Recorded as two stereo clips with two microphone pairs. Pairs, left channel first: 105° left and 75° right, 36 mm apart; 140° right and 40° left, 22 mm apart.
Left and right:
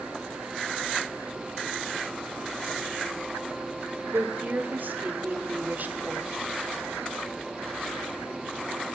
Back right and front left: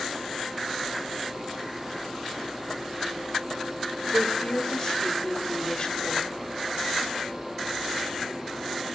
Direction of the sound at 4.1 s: 100° right.